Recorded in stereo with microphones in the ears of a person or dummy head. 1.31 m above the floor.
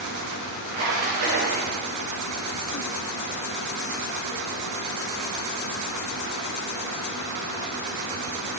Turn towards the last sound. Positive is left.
turn(degrees=-50)  # may be behind; listen again after turning